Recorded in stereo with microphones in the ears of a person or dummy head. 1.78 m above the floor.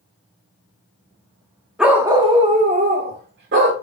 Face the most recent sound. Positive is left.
turn(degrees=-60)  # may be behind; listen again after turning